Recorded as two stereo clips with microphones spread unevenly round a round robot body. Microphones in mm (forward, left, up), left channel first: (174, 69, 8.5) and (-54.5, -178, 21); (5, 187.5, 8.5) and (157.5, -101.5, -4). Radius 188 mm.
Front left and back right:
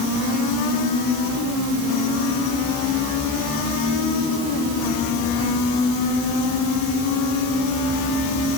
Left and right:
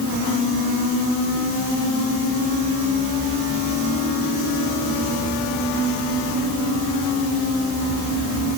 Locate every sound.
Only background noise.